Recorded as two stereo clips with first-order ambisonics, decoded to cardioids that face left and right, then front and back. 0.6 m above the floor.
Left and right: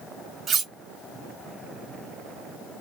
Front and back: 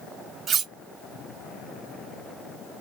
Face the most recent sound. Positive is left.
turn(degrees=-135)